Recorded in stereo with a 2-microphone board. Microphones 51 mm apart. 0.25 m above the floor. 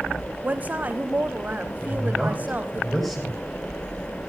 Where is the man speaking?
Centre (ahead or behind), 9.5 m.